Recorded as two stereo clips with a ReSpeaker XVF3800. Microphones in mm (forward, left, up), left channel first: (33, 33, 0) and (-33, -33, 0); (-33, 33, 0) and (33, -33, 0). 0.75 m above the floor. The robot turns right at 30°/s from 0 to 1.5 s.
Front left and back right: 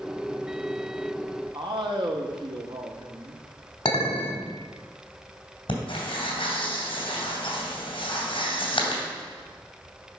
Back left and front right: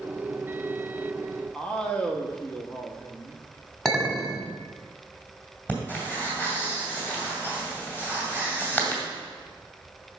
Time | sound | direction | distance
1.5 | a man speaking | 150° right | 1.2 m
3.9 | a clink | 50° left | 1.6 m
5.7 | breathing | 65° left | 2.5 m